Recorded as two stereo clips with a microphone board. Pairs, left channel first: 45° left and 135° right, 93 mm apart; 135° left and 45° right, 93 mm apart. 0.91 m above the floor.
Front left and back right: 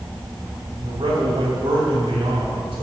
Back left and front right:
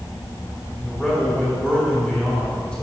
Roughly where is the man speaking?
Behind right.